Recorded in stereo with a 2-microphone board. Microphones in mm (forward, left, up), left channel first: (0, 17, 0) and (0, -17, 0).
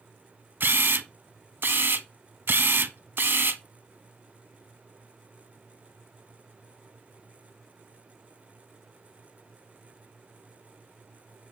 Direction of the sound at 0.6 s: 75° right (ahead or behind).